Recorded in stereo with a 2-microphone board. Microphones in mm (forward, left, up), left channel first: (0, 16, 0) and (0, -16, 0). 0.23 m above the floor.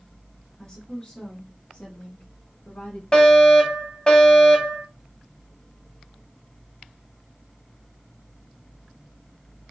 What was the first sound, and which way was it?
A woman speaking, 20° left (ahead or behind).